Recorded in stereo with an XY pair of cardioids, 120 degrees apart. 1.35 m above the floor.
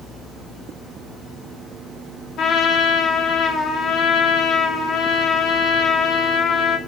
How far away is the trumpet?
About 0.6 m.